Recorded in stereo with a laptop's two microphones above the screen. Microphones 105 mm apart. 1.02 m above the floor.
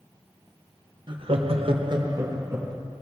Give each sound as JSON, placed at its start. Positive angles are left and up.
{"t": 1.1, "sound": "laughter", "side_deg": -50, "distance_m": 1.0}